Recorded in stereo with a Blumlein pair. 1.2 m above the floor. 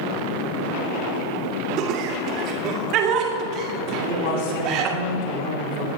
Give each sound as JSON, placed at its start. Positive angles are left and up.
{"t": 1.8, "sound": "laughter", "azimuth_deg": -40, "distance_m": 2.0}
{"t": 3.9, "sound": "a man speaking", "azimuth_deg": 55, "distance_m": 4.0}